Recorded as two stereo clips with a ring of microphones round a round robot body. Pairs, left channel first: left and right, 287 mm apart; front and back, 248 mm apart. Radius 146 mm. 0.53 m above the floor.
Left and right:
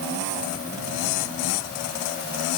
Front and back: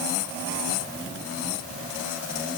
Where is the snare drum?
I don't hear a snare drum.